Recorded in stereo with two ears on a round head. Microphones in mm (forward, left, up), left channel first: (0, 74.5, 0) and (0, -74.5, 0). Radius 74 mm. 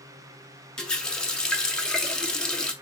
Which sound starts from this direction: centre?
A running tap, at 0.8 s.